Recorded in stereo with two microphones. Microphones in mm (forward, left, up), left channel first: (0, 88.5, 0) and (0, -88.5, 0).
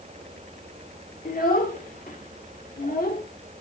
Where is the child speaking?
50° left (ahead or behind), 1.7 m.